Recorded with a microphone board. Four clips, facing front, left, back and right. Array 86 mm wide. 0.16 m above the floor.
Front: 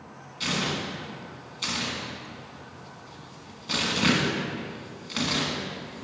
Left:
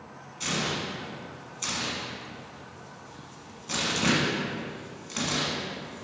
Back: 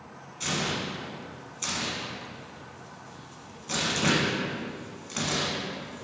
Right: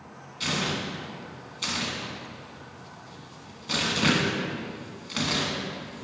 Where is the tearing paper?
45° right, 1.2 m.